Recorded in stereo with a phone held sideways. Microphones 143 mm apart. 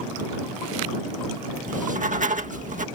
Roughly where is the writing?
Right.